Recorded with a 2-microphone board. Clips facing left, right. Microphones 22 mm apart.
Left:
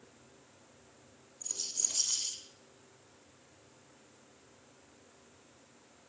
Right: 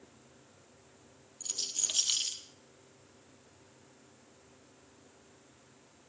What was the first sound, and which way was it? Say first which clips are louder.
A rattle: right 2 dB; 70° right (ahead or behind).